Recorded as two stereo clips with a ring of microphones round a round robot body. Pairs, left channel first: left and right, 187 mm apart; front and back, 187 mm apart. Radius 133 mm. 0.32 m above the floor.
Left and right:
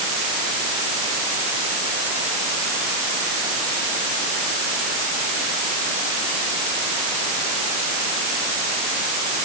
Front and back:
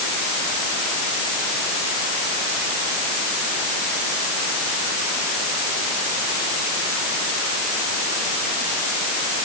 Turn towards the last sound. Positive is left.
No sound to turn to.